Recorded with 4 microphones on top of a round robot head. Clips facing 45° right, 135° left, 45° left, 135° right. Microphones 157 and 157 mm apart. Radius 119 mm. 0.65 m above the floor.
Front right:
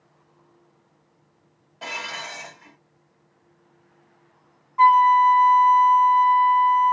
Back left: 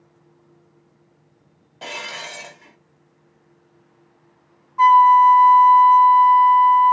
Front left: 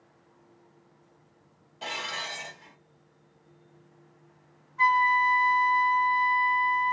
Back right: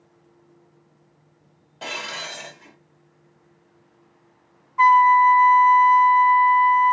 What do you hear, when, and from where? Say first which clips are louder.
1.8 s dishes clattering: back left 1 dB, back right 3 dB; 165° right, 1.1 m
4.8 s a flute: back left 4 dB, back right 10 dB; 130° right, 1.7 m